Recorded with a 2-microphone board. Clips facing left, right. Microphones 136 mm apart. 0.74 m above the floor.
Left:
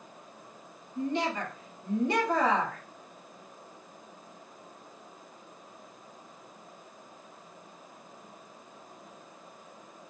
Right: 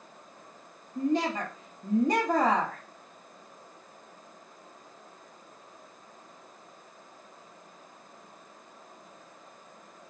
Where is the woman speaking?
40° right (ahead or behind), 0.9 m.